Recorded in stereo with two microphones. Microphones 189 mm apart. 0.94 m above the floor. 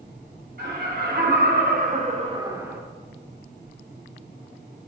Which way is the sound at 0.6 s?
55° right (ahead or behind).